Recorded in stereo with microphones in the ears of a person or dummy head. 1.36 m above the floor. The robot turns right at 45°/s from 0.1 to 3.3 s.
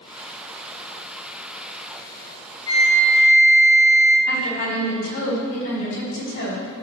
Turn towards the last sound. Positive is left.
turn(degrees=70)  # may be behind; listen again after turning